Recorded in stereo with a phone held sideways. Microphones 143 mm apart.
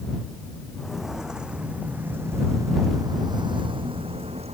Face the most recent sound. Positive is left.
turn(degrees=-45)  # may be behind; listen again after turning